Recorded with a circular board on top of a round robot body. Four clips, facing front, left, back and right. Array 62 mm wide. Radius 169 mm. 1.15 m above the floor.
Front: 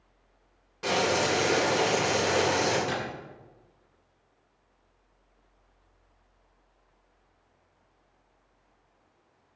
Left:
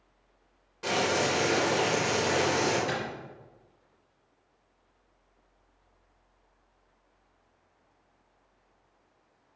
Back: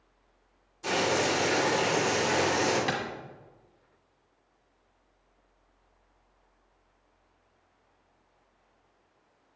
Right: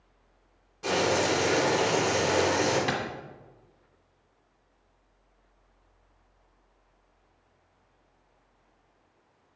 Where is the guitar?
No guitar in this recording.